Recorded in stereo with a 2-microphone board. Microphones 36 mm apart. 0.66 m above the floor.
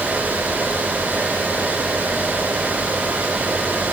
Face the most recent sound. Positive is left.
No sound to turn to.